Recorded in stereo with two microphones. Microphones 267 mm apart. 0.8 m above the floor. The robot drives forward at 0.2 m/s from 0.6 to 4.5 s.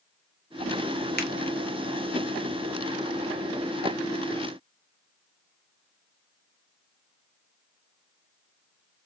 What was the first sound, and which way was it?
A finger snap, 40° left (ahead or behind).